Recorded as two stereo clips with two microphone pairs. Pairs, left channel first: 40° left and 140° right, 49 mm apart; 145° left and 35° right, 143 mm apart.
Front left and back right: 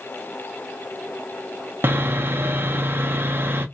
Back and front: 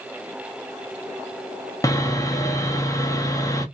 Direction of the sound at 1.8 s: 155° right.